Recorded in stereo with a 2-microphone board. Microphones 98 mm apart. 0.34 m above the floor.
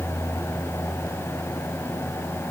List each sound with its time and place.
Only background noise.